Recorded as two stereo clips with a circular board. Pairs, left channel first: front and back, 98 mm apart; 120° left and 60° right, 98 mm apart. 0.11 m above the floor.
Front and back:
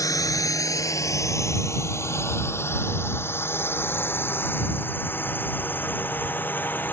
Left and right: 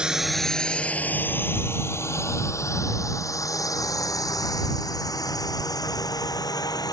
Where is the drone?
15° left; by 6.9 s 70° left.